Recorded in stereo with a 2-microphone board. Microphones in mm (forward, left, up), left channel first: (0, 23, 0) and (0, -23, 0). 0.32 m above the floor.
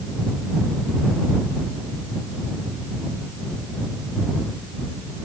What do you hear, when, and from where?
Only background noise.